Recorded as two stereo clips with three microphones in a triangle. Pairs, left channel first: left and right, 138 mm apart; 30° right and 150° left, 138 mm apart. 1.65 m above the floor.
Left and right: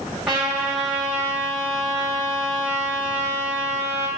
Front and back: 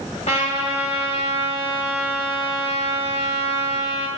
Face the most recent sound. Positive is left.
turn(degrees=-5)